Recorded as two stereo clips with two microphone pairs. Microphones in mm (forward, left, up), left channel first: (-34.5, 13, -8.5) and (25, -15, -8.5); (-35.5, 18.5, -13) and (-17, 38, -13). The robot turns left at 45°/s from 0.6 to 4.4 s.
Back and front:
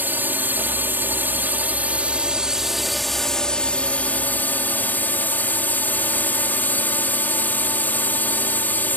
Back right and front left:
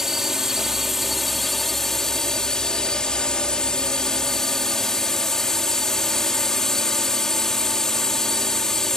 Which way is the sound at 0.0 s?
10° right.